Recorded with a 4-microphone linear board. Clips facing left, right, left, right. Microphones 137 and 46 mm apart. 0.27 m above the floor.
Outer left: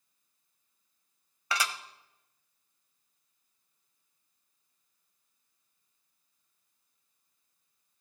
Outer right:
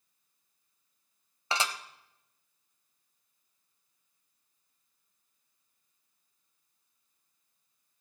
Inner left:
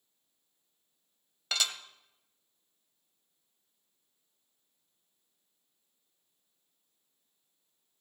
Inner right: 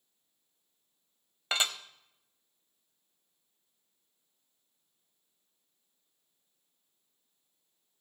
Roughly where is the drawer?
I don't hear a drawer.